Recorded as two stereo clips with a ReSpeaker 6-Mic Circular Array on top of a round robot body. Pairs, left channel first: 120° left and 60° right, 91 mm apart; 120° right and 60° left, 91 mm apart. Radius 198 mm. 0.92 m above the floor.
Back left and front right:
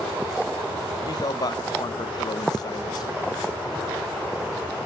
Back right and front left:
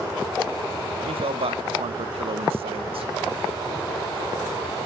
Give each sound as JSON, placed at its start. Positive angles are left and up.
{"t": 1.1, "sound": "a man speaking", "azimuth_deg": 75, "distance_m": 0.9}